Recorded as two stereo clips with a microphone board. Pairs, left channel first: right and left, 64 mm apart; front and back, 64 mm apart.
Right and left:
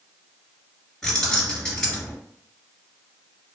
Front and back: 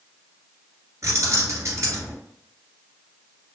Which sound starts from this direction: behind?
Keys jangling, at 1.0 s.